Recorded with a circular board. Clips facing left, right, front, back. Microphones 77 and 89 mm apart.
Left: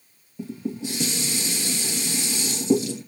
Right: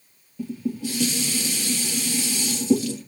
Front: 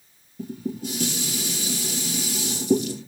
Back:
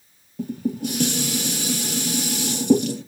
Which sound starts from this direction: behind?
Dishes clattering, at 0.4 s.